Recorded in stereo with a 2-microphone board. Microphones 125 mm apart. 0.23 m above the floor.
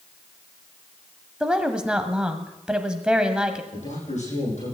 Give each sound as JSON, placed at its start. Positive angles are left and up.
{"t": 1.4, "sound": "a woman speaking", "side_deg": -5, "distance_m": 1.1}
{"t": 3.7, "sound": "a man speaking", "side_deg": 85, "distance_m": 9.0}